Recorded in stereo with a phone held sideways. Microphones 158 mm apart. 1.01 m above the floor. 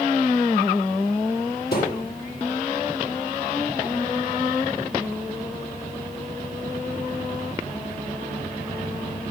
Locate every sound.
1.7 s a thud: 80° left, 9 m